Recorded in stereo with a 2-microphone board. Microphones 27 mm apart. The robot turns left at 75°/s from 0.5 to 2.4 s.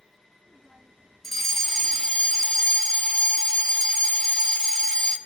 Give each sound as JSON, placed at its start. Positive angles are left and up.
{"t": 1.2, "sound": "a fire alarm", "side_deg": 10, "distance_m": 1.8}